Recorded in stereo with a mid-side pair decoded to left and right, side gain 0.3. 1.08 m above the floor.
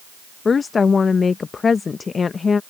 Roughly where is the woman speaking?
Ahead left.